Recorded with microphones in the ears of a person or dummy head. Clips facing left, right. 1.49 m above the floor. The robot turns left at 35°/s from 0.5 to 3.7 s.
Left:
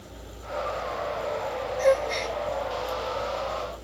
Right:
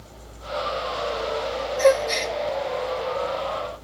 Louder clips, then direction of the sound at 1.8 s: Right 4 dB; 70° right (ahead or behind).